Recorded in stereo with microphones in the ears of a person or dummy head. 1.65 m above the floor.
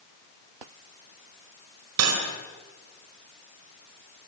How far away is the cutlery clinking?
About 5 m.